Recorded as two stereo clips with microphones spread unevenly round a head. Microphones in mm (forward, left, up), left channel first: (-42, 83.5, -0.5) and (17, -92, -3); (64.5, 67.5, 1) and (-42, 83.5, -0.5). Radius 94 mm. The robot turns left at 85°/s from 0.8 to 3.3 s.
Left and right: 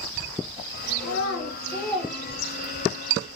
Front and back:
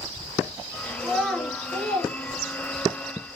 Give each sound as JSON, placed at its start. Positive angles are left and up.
{"t": 1.0, "sound": "a child speaking", "azimuth_deg": 105, "distance_m": 1.7}